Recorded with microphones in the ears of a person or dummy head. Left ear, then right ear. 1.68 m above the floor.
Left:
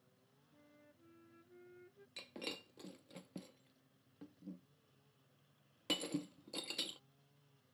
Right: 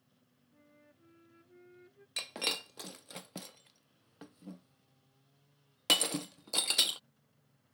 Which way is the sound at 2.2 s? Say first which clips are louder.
Right 12 dB; 25° right (ahead or behind).